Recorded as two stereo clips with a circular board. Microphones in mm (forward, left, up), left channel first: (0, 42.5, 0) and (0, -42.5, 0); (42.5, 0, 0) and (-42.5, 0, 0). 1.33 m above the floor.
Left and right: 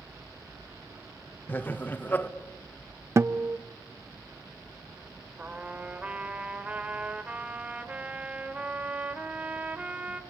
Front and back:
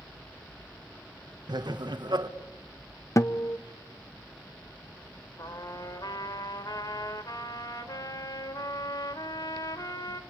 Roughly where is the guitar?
Ahead right.